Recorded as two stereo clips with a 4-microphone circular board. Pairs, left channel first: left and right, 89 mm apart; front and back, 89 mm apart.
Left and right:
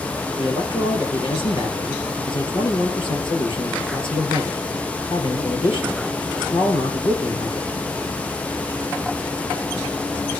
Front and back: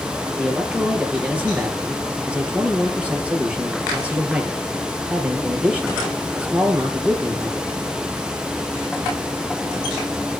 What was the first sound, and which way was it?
A man speaking, 105° left.